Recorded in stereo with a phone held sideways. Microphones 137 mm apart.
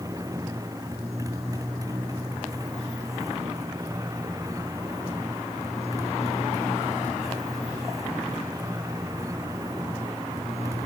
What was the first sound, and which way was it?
A motorcycle, 25° right (ahead or behind).